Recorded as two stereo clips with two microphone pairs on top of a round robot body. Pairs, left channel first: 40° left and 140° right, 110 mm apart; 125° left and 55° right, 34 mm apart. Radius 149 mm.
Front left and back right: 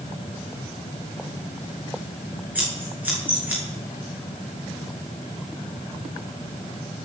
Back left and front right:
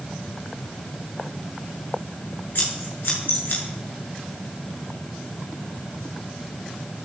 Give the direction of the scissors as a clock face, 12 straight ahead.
7 o'clock.